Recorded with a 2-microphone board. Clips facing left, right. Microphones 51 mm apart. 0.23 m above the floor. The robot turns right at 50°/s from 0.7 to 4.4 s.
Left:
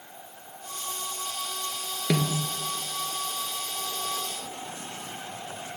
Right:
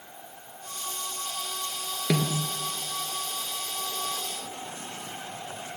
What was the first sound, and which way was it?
A snare drum, 20° left (ahead or behind).